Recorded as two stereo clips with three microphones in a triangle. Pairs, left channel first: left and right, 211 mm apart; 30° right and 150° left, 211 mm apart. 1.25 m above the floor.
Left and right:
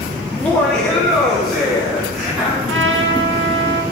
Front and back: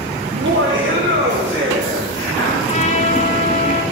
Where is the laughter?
170° left, 0.9 m; by 2.6 s 175° right, 3.5 m.